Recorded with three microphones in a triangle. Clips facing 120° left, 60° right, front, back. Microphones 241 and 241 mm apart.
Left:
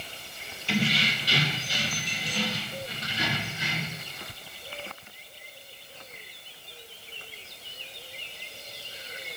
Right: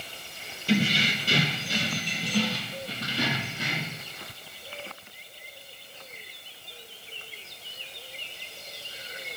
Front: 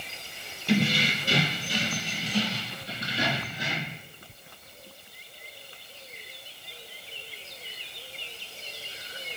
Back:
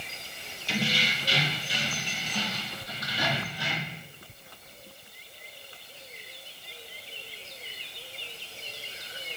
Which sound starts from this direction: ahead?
Keys jangling, at 0.7 s.